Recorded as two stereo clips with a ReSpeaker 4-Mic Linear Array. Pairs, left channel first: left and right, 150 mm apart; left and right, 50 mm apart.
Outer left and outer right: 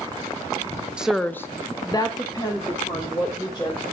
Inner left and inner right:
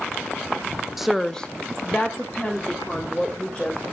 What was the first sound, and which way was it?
A woman speaking, 5° right (ahead or behind).